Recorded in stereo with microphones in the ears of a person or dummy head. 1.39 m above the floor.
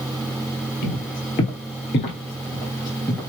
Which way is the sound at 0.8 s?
40° left (ahead or behind).